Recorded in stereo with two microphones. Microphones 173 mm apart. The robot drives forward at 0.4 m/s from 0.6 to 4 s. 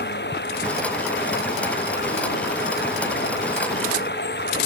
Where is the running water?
80° left.